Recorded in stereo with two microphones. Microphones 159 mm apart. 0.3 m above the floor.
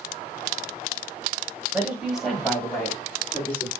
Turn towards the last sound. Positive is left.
turn(degrees=10)  # may be behind; listen again after turning